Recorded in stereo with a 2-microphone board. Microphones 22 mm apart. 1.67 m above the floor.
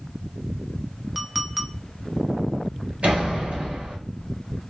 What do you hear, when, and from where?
1.1 s a clink: 15° right (ahead or behind), 0.7 m
3.0 s a door slam: 65° right (ahead or behind), 1.9 m